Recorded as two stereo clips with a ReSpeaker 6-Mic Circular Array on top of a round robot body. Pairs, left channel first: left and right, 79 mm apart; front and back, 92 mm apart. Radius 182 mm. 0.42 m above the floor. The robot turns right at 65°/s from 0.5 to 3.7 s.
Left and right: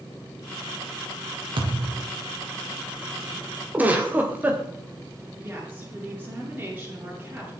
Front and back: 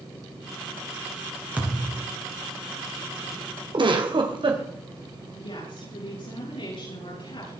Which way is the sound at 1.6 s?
105° right.